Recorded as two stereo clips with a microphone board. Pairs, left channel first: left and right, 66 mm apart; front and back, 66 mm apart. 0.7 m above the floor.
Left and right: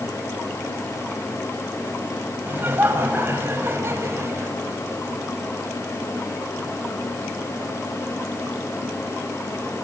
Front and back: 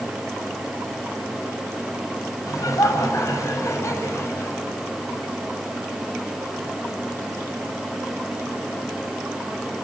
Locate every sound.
2.5 s laughter: 30° right, 5 m; by 4.5 s 45° right, 4.5 m